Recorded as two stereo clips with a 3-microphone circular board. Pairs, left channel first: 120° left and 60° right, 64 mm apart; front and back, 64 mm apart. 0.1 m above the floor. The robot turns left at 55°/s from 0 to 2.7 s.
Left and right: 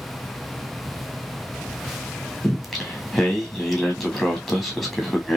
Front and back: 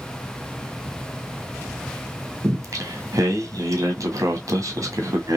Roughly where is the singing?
Behind right.